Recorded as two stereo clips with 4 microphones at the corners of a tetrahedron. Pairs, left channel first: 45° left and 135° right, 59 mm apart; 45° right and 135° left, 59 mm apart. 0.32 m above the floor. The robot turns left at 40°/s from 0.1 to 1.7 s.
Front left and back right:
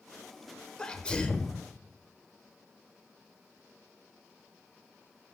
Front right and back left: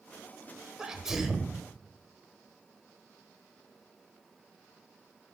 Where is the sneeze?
85° left, 0.8 m; by 1.6 s 50° left, 0.8 m.